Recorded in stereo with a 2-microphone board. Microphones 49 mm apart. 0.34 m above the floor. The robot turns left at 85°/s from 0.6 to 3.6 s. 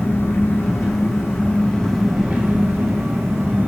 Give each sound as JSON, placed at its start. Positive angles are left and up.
{"t": 0.0, "sound": "an engine running", "azimuth_deg": 120, "distance_m": 0.9}